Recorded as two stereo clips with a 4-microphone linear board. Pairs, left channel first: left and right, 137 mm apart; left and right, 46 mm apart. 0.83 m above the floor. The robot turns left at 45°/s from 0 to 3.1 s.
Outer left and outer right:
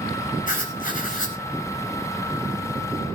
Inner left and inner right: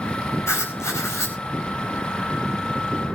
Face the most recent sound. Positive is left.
turn(degrees=-10)